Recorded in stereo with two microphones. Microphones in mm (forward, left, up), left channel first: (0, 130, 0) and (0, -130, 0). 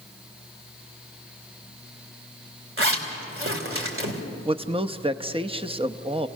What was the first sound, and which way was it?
A zipper, 55° right (ahead or behind).